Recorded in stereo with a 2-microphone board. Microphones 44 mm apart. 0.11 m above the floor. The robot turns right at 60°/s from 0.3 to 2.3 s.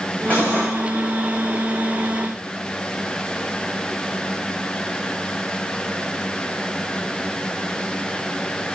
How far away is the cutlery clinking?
About 5.5 m.